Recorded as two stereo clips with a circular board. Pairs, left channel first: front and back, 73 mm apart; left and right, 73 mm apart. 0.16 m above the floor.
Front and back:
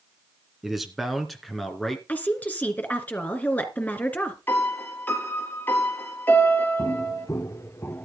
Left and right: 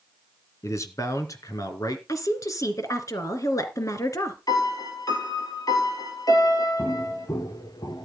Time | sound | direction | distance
0.6 | a man speaking | 95° left | 2 m
2.1 | a woman speaking | 65° left | 2.5 m
4.5 | a piano | 60° left | 2.5 m
6.8 | footsteps | 35° left | 2 m